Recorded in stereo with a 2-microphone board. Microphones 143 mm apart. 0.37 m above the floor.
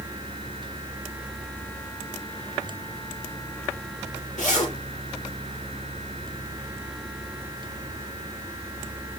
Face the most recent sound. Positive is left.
turn(degrees=70)  # may be behind; listen again after turning